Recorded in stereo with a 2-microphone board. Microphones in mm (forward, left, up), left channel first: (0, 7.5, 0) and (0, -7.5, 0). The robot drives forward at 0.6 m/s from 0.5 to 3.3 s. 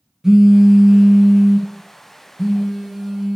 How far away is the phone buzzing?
About 1.0 m.